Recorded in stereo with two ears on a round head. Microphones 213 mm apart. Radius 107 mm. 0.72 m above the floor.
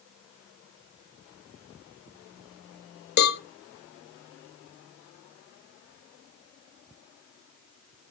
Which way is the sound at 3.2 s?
40° left (ahead or behind).